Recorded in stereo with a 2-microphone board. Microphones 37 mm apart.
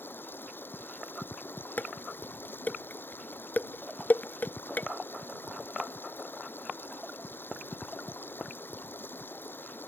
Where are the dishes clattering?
55° left (ahead or behind).